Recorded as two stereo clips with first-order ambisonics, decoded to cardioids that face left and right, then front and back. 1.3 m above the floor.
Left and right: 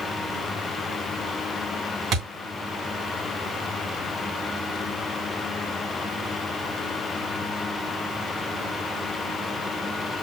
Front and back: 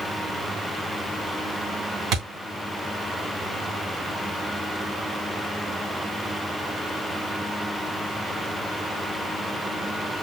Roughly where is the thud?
Behind right.